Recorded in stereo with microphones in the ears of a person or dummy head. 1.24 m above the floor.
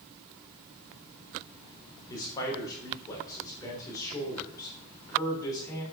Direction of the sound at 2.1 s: 20° left (ahead or behind).